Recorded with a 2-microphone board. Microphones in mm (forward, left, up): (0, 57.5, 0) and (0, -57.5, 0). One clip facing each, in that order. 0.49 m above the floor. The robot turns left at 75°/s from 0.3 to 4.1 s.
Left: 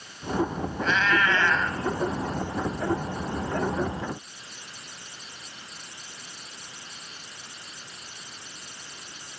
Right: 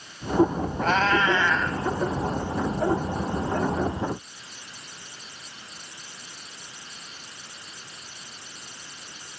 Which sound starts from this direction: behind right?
A cat meowing, at 0.8 s.